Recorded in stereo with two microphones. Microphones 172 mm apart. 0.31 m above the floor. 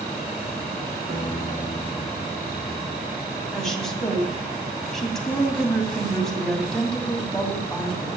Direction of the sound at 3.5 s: 5° left (ahead or behind).